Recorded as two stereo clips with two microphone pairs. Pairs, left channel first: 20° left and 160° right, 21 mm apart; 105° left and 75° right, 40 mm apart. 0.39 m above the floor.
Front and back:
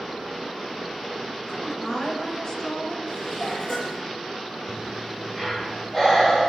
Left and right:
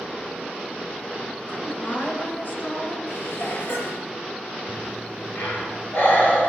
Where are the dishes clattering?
90° left, 5.5 m.